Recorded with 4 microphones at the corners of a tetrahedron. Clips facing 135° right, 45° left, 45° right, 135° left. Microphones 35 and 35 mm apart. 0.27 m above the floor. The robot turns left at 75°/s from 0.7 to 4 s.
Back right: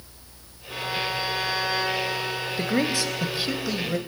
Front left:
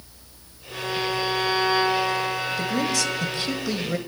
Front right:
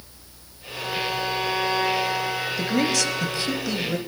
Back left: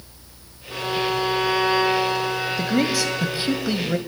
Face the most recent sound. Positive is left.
turn(degrees=115)